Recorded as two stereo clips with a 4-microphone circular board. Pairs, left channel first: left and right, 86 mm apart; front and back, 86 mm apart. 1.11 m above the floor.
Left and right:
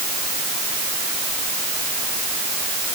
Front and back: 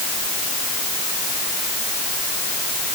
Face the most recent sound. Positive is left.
No sound to turn to.